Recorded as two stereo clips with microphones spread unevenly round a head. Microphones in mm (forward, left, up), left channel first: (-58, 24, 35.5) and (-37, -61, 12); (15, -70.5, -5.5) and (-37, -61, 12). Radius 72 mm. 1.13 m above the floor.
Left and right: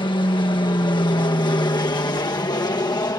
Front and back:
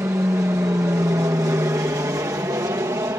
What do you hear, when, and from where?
0.0 s an aircraft: 125° left; by 3.2 s 145° left